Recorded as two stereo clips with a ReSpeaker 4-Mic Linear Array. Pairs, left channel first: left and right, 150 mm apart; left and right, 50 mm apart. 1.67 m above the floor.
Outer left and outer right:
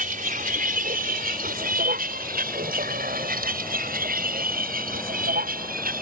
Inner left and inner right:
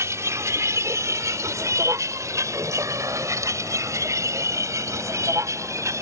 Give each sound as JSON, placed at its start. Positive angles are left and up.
{"t": 0.0, "sound": "a vehicle", "side_deg": -70}